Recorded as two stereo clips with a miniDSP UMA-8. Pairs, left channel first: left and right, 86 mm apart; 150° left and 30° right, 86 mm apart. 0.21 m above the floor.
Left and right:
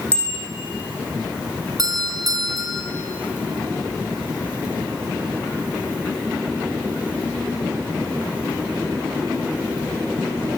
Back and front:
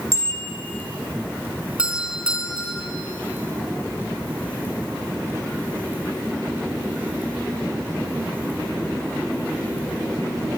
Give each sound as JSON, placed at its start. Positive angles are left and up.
{"t": 0.1, "sound": "a bicycle bell", "azimuth_deg": 15, "distance_m": 7.5}
{"t": 1.8, "sound": "a doorbell", "azimuth_deg": -105, "distance_m": 3.5}